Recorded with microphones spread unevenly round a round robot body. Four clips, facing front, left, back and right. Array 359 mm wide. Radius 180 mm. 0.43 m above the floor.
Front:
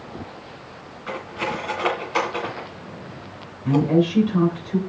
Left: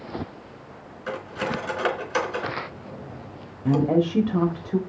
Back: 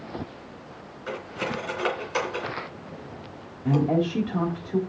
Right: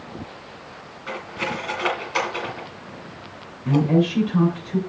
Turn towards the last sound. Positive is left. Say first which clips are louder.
# right 1 dB, front 4 dB
turn(degrees=100)